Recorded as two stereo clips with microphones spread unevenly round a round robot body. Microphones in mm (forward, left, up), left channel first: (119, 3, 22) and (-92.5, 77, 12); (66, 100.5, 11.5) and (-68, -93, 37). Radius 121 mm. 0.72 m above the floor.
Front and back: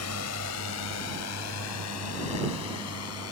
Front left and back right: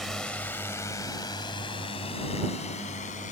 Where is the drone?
35° right; by 3.3 s 5° right.